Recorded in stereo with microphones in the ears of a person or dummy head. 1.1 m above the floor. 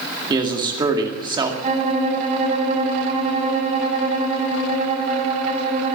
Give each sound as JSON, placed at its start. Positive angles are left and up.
{"t": 0.3, "sound": "a man speaking", "side_deg": -25, "distance_m": 2.0}
{"t": 1.6, "sound": "a violin", "side_deg": -30, "distance_m": 6.5}